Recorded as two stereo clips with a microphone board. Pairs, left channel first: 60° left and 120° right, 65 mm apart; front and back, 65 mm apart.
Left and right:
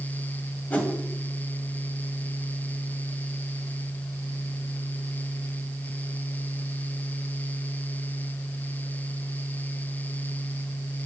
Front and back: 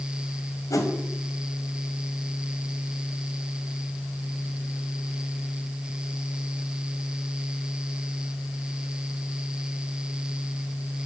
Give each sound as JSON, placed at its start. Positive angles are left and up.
{"t": 0.7, "sound": "a whoosh", "azimuth_deg": -5, "distance_m": 1.6}